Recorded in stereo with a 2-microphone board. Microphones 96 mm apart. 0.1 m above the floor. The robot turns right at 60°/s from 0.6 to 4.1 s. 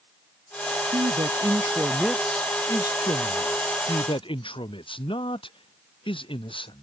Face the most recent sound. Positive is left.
turn(degrees=115)